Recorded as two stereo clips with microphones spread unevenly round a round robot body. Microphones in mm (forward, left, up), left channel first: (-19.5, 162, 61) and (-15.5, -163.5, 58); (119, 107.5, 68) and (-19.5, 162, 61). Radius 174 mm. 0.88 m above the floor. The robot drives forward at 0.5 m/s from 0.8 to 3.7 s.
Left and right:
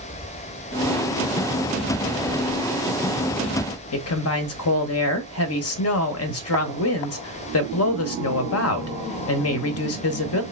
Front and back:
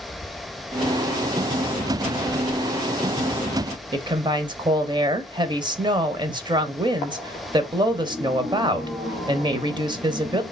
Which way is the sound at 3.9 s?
110° left.